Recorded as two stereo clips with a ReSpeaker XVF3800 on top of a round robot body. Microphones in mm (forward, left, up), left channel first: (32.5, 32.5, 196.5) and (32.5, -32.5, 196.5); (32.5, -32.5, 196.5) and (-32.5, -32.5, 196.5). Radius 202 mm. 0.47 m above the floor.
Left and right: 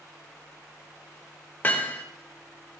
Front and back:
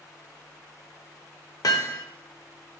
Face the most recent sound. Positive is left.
turn(degrees=30)